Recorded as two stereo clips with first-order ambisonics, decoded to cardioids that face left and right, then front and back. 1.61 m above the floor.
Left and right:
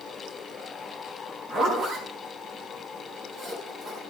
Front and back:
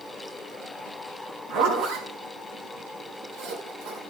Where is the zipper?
145° right, 4.5 m.